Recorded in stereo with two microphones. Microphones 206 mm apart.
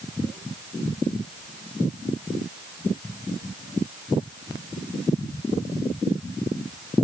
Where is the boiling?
I don't hear boiling.